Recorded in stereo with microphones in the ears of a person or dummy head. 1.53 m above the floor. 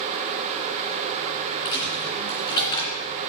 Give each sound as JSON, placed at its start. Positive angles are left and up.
{"t": 1.6, "sound": "a dropped coin", "side_deg": 30, "distance_m": 2.5}